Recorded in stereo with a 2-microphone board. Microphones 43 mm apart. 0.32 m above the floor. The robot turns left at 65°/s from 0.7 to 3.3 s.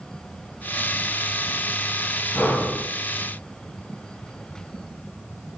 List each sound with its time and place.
2.4 s breathing: 60° left, 2 m; by 2.8 s 30° left, 2 m